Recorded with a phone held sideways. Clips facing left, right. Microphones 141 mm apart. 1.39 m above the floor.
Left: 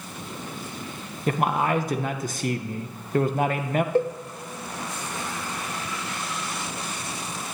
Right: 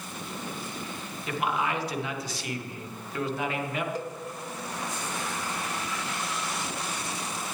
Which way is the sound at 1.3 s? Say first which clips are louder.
Left 6 dB; 50° left (ahead or behind).